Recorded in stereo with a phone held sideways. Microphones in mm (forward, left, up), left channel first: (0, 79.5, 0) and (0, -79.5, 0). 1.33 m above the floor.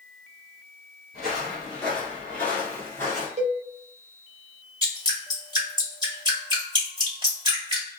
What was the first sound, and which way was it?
Footsteps, centre (ahead or behind).